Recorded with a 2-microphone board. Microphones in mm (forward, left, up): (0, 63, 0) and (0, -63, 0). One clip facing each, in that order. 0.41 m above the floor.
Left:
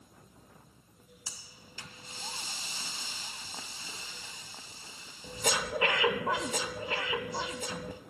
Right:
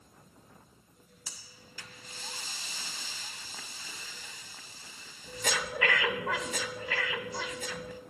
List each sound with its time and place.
1.3 s breathing: 25° left (ahead or behind), 0.5 m